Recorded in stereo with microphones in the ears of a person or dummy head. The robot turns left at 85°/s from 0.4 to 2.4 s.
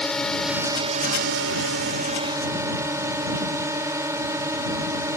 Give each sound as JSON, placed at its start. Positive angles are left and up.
{"t": 0.0, "sound": "a drone", "azimuth_deg": 5}